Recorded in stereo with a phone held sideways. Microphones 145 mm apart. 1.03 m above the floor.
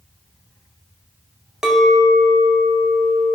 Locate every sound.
1.6 s a clink: 5° right (ahead or behind), 0.5 m